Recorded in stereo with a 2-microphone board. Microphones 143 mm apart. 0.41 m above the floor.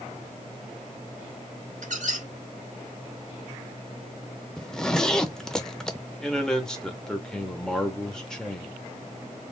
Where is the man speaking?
5° left (ahead or behind), 1.1 m.